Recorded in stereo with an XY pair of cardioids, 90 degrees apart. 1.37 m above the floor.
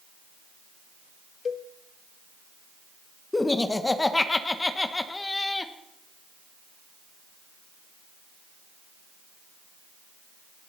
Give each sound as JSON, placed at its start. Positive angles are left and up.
{"t": 1.4, "sound": "a cowbell", "azimuth_deg": 50, "distance_m": 0.6}
{"t": 3.3, "sound": "laughter", "azimuth_deg": 20, "distance_m": 1.4}